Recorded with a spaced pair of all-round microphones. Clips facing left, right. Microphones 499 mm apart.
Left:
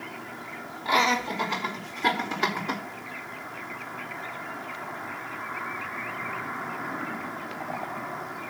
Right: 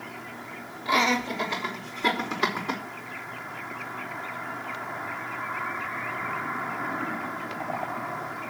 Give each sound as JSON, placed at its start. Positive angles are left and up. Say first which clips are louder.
{"t": 0.8, "sound": "laughter", "louder": "right 2 dB", "side_deg": 15, "distance_m": 5.0}